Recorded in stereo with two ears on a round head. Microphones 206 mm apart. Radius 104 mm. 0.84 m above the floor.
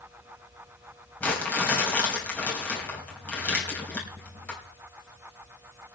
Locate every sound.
1.2 s crumpling: 5° left (ahead or behind), 3 m